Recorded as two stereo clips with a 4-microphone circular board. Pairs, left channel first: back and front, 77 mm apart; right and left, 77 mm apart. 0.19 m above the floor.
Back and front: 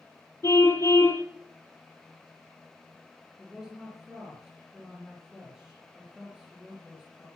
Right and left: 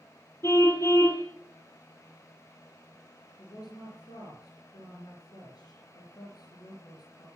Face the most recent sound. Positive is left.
turn(degrees=-80)